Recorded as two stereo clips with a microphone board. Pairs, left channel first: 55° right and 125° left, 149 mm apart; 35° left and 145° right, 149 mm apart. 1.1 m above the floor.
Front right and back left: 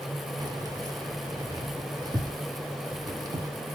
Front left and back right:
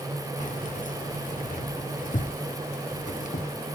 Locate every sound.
0.4 s keys jangling: 60° left, 1.1 m